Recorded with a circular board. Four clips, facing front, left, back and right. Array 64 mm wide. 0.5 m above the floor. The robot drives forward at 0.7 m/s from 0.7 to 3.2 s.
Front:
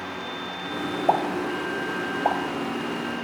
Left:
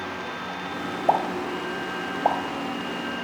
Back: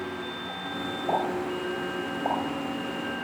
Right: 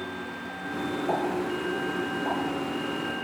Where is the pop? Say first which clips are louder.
Left 6 dB, front 4 dB; 50° left, 3 m; by 2.4 s 65° left, 2.5 m.